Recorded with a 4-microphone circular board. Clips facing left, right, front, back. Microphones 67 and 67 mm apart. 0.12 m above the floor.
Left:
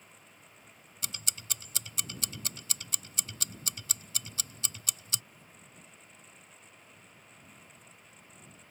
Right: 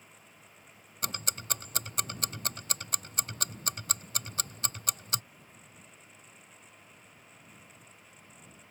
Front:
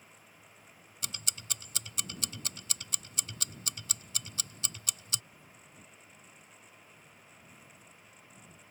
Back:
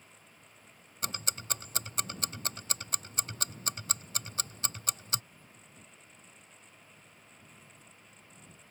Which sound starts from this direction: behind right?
Ticking, at 1.0 s.